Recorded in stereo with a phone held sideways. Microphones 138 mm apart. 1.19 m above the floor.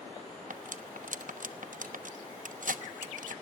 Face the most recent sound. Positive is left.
turn(degrees=-75)  # may be behind; listen again after turning